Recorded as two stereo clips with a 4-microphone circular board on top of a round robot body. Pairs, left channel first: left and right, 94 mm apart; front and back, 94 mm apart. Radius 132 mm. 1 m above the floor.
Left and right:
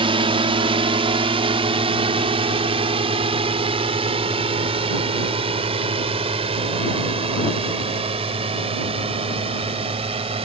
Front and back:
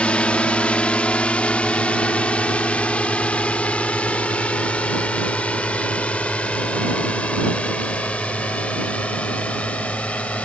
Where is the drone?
75° right.